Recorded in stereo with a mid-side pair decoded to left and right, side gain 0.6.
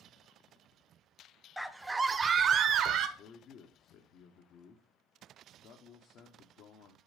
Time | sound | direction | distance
1.6 | a scream | straight ahead | 0.9 m
3.2 | a man speaking | 60° left | 1.1 m